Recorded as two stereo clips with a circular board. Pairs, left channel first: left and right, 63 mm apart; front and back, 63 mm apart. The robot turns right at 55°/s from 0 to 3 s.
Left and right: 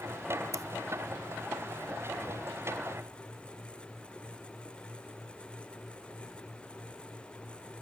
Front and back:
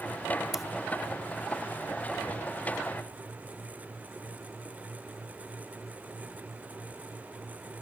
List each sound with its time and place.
0.5 s scissors: 100° right, 0.8 m; by 0.6 s 95° right, 0.8 m